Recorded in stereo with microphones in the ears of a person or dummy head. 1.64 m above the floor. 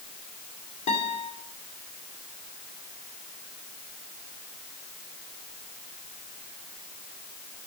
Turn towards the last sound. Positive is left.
turn(degrees=25)  # may be behind; listen again after turning